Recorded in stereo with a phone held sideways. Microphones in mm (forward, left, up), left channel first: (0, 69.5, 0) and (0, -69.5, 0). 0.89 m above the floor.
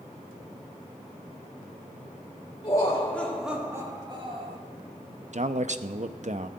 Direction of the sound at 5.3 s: 55° right (ahead or behind).